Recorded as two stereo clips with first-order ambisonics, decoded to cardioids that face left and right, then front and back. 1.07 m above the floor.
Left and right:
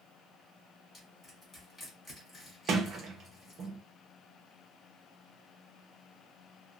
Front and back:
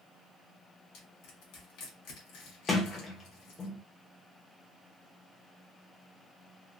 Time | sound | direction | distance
0.9 | crushing | 10° left | 1.7 m
2.7 | a sliding door | 65° right | 0.7 m